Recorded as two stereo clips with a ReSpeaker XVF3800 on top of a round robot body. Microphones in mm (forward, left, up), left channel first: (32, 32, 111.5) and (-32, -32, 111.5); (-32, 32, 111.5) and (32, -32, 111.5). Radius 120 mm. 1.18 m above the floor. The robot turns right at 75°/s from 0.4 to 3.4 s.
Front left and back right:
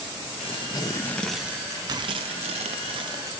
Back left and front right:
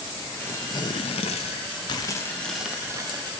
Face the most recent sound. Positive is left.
turn(degrees=-70)